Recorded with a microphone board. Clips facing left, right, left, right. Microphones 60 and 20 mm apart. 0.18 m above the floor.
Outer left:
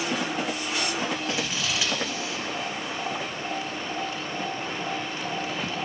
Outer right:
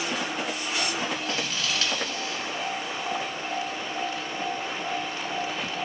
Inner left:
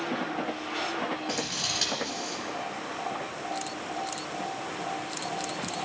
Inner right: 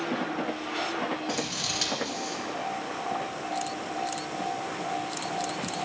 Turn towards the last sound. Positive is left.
turn(degrees=10)  # may be behind; listen again after turning